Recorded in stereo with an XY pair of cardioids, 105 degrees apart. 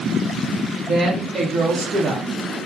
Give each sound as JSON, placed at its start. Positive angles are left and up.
{"t": 0.9, "sound": "a woman speaking", "azimuth_deg": -40, "distance_m": 1.0}